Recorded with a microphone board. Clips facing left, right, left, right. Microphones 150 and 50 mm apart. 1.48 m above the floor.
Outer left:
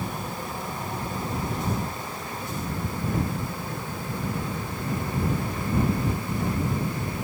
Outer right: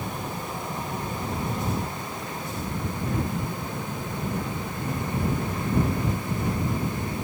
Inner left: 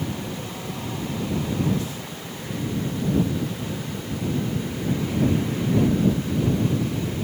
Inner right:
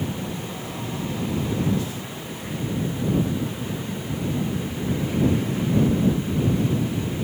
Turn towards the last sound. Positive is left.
No sound to turn to.